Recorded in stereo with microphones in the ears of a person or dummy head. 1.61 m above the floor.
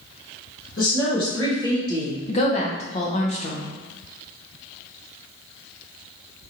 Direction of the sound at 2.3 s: 30° left (ahead or behind).